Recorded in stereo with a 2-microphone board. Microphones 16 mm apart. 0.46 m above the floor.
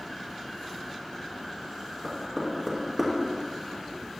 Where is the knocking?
10° right (ahead or behind), 4 m.